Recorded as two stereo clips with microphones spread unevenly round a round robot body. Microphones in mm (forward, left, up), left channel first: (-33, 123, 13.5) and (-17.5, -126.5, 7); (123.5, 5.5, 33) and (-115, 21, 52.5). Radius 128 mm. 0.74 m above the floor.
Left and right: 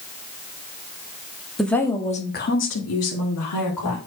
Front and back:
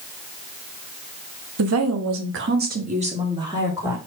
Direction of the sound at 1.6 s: 175° right.